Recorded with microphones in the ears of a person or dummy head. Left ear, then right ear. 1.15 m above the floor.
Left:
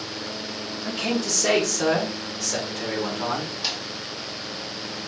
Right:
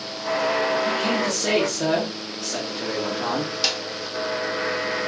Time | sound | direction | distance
0.8 | a man speaking | 25° left (ahead or behind) | 1.2 m
3.6 | a snare drum | 60° right (ahead or behind) | 0.7 m